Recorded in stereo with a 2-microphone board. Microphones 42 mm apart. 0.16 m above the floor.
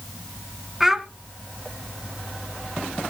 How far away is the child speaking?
About 0.9 m.